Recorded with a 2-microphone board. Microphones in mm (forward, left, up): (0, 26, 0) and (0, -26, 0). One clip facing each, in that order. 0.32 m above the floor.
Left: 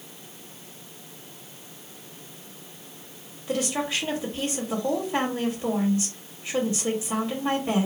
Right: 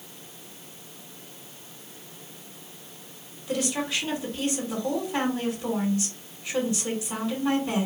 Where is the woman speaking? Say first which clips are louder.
Left 1 dB; 25° left (ahead or behind), 1.5 m.